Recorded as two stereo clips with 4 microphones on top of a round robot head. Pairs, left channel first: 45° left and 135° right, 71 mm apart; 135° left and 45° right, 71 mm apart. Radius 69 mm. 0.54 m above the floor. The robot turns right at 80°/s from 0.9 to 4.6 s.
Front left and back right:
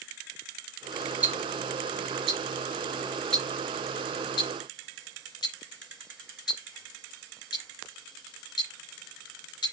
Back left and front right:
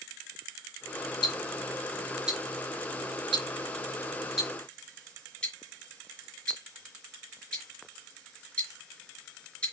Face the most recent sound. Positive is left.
turn(degrees=65)